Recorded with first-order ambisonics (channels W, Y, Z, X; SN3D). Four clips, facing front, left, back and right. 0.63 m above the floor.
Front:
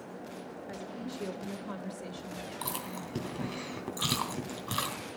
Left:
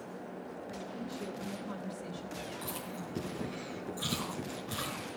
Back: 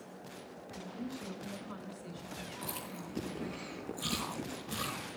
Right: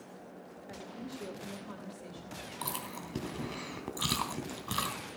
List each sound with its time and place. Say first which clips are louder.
0.7 s a woman speaking: even, front 1 dB; 10° right, 2.5 m; by 3.6 s 15° left, 4.5 m
2.6 s chewing: right 1 dB, front 5 dB; 35° right, 3 m